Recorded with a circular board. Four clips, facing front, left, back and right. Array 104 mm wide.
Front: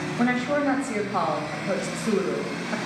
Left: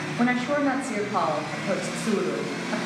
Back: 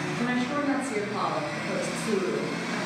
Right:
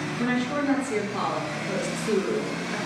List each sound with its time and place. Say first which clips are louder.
0.2 s a woman speaking: left 4 dB, front 5 dB; 55° left, 2 m